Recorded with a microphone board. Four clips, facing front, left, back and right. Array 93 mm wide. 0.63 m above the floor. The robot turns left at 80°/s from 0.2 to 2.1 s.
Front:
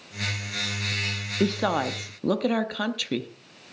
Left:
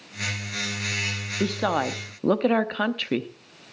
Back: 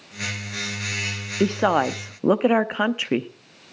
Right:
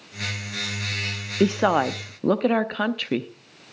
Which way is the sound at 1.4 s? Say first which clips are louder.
Right 5 dB, back 5 dB; 120° right.